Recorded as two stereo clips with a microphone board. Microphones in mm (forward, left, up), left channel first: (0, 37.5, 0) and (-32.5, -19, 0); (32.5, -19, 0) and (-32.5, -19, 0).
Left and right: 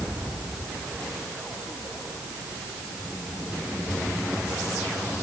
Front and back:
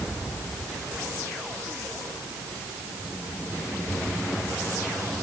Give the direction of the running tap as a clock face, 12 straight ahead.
No running tap in this recording.